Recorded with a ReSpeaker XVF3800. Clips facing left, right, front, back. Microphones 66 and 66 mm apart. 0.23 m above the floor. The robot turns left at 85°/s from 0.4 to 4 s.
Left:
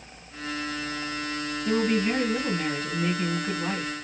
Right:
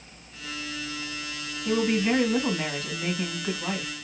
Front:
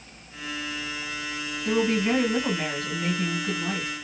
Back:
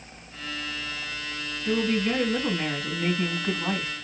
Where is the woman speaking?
5° right, 1.3 m; by 3.9 s 165° left, 1.3 m.